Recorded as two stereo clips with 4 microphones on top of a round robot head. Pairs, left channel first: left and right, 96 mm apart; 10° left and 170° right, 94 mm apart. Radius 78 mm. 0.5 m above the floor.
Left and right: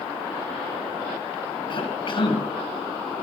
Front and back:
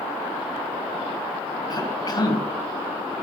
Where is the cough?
55° left, 4.5 m.